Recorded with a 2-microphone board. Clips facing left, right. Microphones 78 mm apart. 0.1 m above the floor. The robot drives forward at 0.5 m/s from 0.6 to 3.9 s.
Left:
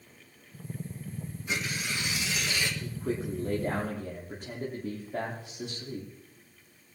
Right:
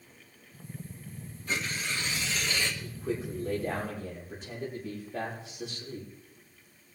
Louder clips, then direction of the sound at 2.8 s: Left 1 dB; 60° left (ahead or behind).